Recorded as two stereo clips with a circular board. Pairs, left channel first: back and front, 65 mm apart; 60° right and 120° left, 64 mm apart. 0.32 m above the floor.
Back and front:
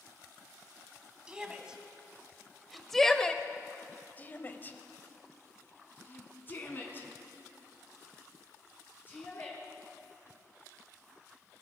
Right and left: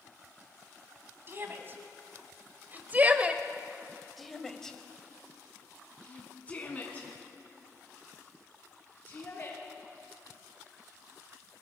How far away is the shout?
About 2.5 m.